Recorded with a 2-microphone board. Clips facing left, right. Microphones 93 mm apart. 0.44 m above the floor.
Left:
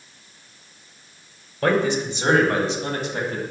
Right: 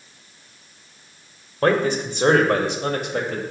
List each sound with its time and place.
1.6 s a man speaking: 40° right (ahead or behind), 2 m; by 3.4 s 60° right (ahead or behind), 2.5 m